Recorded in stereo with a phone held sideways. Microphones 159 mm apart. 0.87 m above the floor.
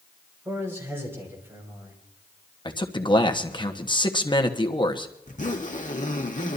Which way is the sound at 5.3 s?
50° left (ahead or behind).